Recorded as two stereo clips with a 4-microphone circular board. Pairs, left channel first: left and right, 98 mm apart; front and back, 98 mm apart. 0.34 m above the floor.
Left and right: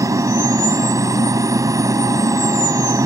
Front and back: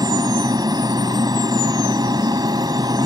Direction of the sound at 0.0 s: 140° right.